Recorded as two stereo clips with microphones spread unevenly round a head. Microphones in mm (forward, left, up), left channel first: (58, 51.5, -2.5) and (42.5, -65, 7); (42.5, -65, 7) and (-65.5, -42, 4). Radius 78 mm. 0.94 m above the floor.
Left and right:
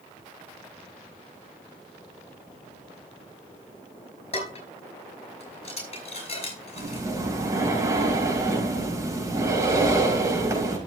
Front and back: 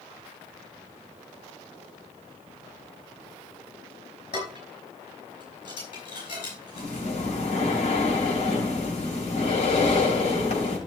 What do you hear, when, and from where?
4.3 s dishes clattering: 45° left, 5 m
6.8 s breathing: 35° right, 4.5 m